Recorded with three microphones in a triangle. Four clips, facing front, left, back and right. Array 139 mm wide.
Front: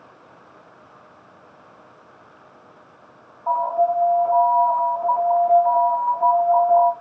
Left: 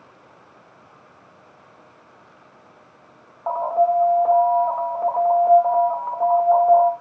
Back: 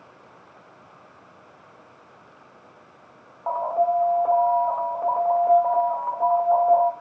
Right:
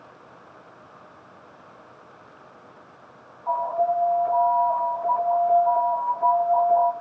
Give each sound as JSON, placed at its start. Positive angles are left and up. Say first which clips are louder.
{"t": 3.5, "sound": "an alarm", "louder": "left 4 dB, front 3 dB", "azimuth_deg": 120, "distance_m": 2.0}